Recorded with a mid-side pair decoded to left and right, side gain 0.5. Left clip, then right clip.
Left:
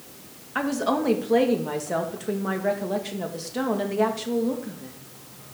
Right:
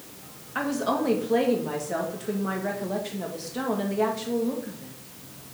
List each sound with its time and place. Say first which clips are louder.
0.6 s a woman speaking: left 2 dB; 25° left, 1.8 m